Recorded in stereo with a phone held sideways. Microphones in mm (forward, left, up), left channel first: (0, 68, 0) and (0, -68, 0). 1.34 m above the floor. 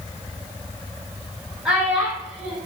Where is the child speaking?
5° right (ahead or behind), 0.7 m.